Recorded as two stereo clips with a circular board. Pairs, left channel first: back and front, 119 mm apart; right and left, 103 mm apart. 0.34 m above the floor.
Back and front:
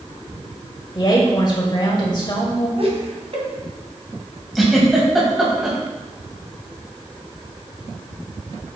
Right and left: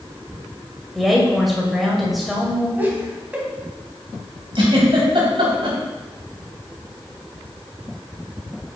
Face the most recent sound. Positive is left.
turn(degrees=85)